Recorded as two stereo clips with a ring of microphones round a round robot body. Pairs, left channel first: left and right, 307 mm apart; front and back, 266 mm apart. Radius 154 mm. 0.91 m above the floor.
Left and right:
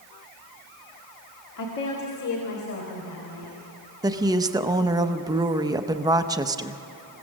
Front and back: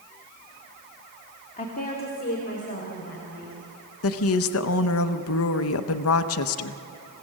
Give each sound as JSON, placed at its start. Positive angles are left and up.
{"t": 1.6, "sound": "a woman speaking", "azimuth_deg": 60, "distance_m": 2.0}
{"t": 4.0, "sound": "a woman speaking", "azimuth_deg": -15, "distance_m": 0.7}